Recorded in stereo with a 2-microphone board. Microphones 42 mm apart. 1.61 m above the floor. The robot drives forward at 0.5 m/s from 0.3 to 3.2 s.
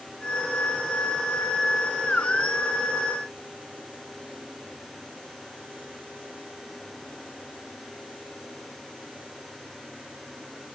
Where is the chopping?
No chopping in this recording.